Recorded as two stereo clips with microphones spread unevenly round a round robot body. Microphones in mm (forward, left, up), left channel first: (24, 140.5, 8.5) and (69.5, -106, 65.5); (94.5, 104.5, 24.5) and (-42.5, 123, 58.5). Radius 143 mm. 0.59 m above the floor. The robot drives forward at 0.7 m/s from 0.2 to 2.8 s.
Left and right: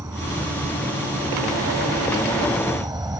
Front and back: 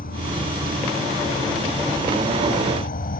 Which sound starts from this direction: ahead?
An insect, at 0.0 s.